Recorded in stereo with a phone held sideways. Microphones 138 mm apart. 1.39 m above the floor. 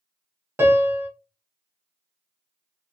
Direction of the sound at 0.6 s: 15° right (ahead or behind).